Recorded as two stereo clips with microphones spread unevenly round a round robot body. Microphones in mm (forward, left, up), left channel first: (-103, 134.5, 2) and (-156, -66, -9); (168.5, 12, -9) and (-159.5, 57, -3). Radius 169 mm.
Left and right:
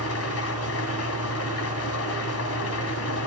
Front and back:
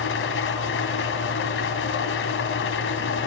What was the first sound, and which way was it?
An engine running, 45° left.